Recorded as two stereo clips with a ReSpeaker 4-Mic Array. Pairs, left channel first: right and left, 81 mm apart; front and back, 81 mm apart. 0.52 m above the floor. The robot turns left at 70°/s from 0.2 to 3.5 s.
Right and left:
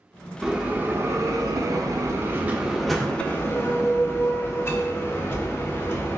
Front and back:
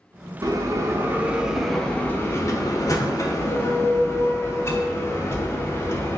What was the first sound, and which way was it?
A bell, 175° left.